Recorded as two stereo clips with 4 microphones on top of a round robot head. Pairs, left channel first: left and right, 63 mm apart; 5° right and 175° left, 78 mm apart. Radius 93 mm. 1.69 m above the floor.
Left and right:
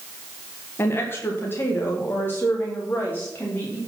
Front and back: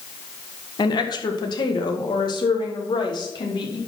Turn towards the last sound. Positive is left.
turn(degrees=25)